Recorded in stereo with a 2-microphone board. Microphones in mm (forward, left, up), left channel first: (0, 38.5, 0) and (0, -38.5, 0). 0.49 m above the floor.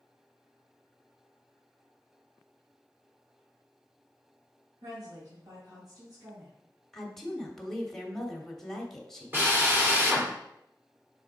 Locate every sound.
4.8 s a woman speaking: 75° right (ahead or behind), 3 m
6.9 s a woman speaking: 5° left (ahead or behind), 1.3 m
9.3 s a drill: 30° right (ahead or behind), 1.7 m